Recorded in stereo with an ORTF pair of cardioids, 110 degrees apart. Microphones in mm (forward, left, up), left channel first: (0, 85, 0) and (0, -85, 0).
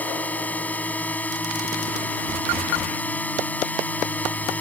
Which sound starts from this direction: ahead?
A drone, at 0.0 s.